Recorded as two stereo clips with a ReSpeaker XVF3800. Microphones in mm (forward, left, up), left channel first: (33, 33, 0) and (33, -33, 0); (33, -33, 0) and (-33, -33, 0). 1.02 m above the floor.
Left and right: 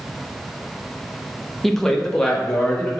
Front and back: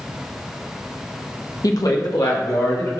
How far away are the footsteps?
No footsteps in this recording.